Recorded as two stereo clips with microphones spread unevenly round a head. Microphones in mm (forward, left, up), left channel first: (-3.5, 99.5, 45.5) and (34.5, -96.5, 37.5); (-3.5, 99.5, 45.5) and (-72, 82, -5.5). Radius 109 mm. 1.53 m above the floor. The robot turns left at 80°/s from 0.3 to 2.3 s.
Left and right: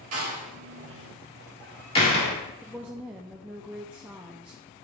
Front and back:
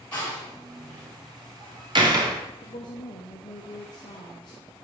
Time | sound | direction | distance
0.1 | a door slam | 60° right | 2 m
2.6 | a woman speaking | 5° left | 0.6 m